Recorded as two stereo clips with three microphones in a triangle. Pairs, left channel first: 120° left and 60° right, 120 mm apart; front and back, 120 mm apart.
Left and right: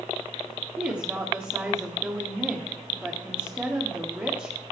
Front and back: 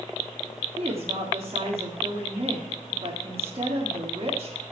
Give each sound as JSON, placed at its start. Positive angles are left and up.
{"t": 0.8, "sound": "a woman speaking", "azimuth_deg": -135, "distance_m": 1.9}